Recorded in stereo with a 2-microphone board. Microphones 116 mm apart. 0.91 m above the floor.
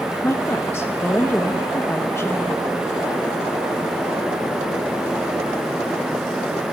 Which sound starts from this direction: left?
A woman speaking, at 0.2 s.